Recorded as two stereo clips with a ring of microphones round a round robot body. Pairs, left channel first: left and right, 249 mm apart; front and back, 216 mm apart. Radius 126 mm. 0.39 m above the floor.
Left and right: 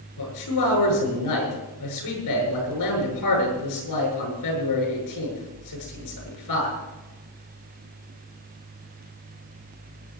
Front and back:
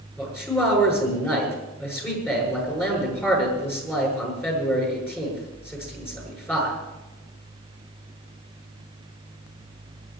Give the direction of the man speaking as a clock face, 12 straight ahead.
9 o'clock.